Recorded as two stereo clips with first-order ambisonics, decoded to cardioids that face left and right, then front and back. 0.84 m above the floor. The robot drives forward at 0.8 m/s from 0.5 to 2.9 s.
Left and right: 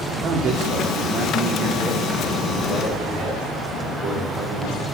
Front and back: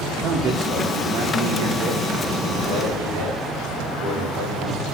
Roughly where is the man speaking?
Behind right.